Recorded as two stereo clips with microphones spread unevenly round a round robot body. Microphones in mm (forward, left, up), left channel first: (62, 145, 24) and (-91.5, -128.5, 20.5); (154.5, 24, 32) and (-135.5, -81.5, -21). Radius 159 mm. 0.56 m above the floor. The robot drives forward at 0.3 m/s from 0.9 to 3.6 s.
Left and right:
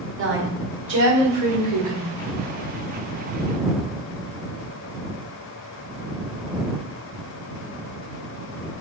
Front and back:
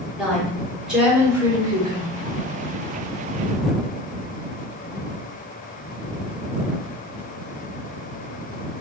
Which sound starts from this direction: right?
A woman speaking, at 0.2 s.